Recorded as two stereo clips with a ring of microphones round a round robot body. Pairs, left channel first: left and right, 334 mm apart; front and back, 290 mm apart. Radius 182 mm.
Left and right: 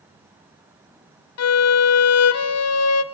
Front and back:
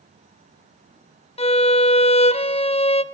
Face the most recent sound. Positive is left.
turn(degrees=65)